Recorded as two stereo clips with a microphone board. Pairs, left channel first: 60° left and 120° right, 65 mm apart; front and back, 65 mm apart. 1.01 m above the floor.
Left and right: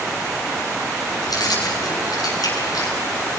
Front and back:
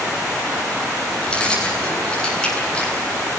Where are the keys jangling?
75° left, 8 m.